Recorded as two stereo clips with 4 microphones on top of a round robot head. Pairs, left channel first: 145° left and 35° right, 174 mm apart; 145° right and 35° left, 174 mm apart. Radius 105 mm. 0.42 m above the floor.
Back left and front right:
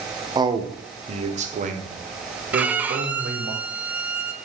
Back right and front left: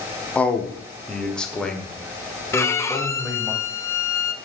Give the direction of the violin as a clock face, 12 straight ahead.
3 o'clock.